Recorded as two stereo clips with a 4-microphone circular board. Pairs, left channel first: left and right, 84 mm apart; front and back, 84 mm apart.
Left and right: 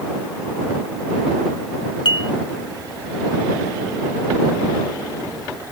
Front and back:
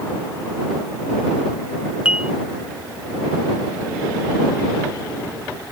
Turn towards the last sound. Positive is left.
turn(degrees=105)